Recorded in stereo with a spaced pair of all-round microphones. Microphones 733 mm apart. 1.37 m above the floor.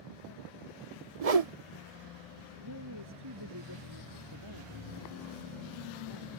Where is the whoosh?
55° right (ahead or behind).